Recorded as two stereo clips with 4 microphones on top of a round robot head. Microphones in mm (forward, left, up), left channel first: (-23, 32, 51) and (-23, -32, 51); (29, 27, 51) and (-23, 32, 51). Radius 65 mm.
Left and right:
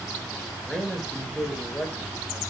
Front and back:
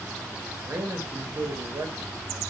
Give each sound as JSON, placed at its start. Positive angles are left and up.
{"t": 0.7, "sound": "a man speaking", "azimuth_deg": 170, "distance_m": 0.8}